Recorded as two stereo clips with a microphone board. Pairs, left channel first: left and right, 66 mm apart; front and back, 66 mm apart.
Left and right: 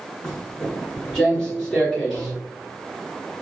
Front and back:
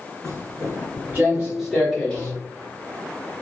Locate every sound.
0.2 s footsteps: 170° left, 1.8 m; by 2.3 s 25° left, 1.3 m